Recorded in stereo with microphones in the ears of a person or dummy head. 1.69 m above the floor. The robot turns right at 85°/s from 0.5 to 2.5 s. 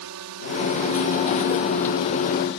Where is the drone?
70° right (ahead or behind); by 2.6 s 60° left (ahead or behind).